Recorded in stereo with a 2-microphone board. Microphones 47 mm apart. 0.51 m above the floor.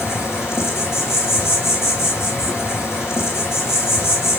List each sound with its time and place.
0.0 s an insect: 75° left (ahead or behind), 1.9 m